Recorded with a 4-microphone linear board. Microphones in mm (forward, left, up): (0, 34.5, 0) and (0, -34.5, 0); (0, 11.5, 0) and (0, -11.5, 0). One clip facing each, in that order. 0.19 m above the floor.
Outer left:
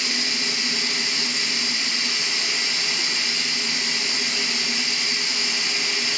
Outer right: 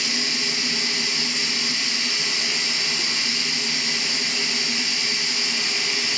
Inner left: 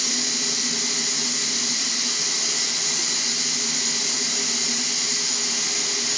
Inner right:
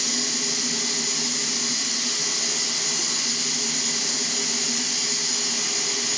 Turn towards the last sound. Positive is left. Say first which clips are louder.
# even, inner left 1 dB
turn(degrees=55)  # may be behind; listen again after turning